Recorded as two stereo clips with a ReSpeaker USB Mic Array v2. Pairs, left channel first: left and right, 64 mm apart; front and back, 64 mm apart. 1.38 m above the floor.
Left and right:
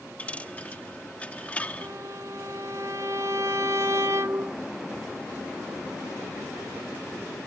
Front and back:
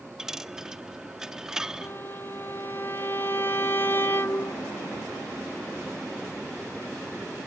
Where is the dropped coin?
115° left.